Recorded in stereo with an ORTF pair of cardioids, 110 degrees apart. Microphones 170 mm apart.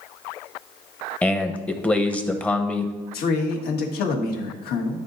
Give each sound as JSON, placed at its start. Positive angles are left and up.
{"t": 1.2, "sound": "a man speaking", "azimuth_deg": 5, "distance_m": 0.8}
{"t": 3.1, "sound": "a man speaking", "azimuth_deg": 65, "distance_m": 1.4}